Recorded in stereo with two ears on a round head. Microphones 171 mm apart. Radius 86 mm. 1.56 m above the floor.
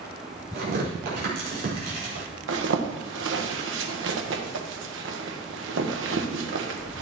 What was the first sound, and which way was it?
Tearing paper, 50° right (ahead or behind).